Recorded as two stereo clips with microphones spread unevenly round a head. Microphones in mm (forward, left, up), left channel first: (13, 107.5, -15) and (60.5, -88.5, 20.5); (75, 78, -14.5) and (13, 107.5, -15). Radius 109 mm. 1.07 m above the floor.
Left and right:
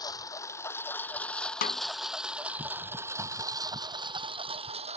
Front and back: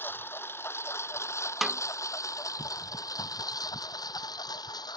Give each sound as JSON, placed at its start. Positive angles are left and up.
{"t": 0.0, "sound": "a lawn mower", "azimuth_deg": 30}
{"t": 1.6, "sound": "a snare drum", "azimuth_deg": 65}